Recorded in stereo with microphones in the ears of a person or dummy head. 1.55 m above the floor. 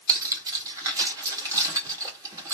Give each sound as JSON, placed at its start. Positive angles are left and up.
{"t": 0.1, "sound": "cutlery clinking", "side_deg": -20, "distance_m": 1.6}